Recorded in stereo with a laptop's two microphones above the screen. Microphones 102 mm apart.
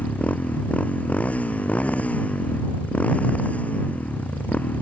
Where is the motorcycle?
15° left (ahead or behind).